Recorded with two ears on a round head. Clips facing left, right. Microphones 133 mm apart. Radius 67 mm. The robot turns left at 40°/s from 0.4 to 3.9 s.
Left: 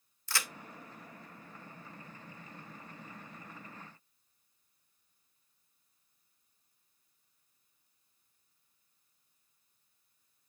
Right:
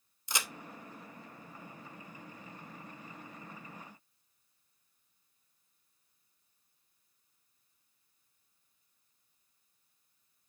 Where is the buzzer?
No buzzer in this recording.